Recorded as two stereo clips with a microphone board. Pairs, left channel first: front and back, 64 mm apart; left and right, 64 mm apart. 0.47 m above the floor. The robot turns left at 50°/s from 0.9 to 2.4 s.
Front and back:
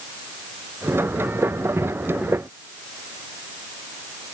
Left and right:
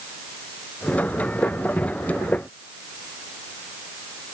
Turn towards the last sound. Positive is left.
No sound to turn to.